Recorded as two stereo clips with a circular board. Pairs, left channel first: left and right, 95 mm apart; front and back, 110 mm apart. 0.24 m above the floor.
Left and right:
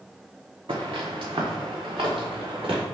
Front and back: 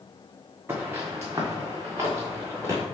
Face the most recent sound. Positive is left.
turn(degrees=-120)